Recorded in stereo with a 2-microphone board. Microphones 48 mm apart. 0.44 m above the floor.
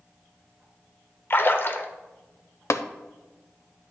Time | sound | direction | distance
1.3 | a splash | 50° left (ahead or behind) | 0.8 m
2.7 | tapping | 75° left (ahead or behind) | 0.5 m